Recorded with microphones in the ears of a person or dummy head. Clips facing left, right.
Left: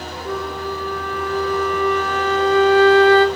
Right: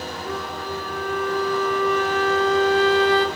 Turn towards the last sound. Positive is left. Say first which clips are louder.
# left 6 dB
turn(degrees=65)  # may be behind; listen again after turning